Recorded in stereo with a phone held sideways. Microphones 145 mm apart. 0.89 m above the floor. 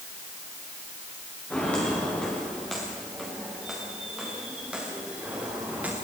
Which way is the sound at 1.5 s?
10° left (ahead or behind).